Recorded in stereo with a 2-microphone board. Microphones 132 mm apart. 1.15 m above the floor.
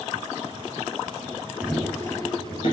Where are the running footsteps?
5° right (ahead or behind), 1.4 m; by 2.7 s 50° left (ahead or behind), 1.8 m.